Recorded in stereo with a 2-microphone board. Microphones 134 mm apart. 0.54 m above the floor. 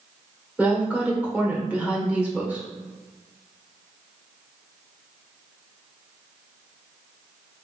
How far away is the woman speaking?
About 1.4 m.